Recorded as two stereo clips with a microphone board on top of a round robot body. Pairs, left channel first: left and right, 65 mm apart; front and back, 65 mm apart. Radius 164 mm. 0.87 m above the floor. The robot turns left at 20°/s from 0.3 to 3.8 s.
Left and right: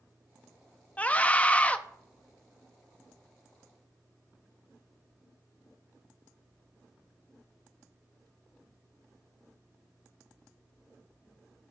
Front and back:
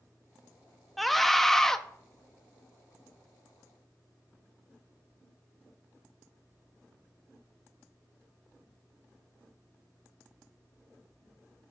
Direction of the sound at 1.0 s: 90° left.